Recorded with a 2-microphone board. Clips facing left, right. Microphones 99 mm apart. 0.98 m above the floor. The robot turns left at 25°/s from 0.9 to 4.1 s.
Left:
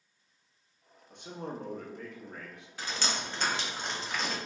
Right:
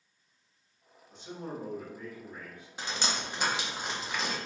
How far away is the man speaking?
About 0.7 m.